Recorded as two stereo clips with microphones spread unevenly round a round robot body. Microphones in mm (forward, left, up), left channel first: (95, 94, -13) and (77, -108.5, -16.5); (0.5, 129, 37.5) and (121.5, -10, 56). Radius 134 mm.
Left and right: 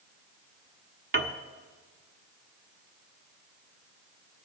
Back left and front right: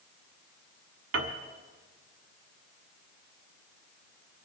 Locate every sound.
1.1 s a piano: 60° right, 1.1 m